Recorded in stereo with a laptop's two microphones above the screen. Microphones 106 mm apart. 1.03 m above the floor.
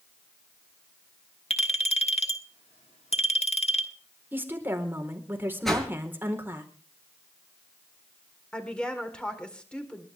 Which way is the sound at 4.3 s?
20° right (ahead or behind).